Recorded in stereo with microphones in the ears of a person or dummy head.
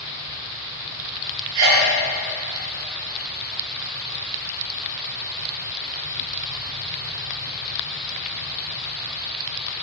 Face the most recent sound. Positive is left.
turn(degrees=-55)  # may be behind; listen again after turning